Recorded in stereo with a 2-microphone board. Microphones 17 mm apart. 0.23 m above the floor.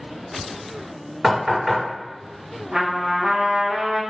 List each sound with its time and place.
1.2 s knocking: 40° right (ahead or behind), 1.7 m
2.7 s a trumpet: 60° right (ahead or behind), 1.3 m